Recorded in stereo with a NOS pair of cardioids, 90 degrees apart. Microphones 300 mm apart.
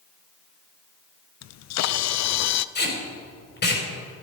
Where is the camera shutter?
60° left, 0.6 m.